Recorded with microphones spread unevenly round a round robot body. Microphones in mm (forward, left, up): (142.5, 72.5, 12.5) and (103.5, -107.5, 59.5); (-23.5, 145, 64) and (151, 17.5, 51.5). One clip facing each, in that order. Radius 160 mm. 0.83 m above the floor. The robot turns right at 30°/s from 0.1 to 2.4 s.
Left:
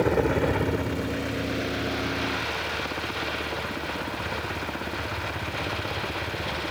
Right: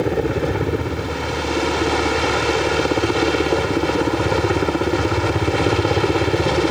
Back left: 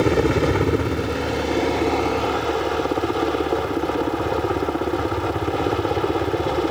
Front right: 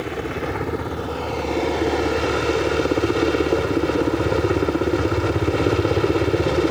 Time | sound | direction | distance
0.0 | a helicopter | 175° right | ?